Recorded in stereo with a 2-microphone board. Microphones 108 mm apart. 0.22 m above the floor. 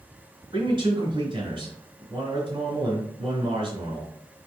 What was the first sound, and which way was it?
A man speaking, 45° right (ahead or behind).